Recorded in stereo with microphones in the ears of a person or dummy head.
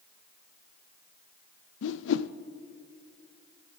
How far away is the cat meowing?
No cat meowing in this recording.